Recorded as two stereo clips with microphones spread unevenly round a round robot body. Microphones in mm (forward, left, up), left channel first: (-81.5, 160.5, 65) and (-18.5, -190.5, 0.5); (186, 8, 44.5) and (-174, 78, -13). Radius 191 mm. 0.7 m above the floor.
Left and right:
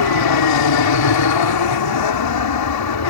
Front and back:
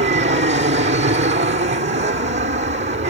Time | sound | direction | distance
0.0 | an aircraft | 110° left | ?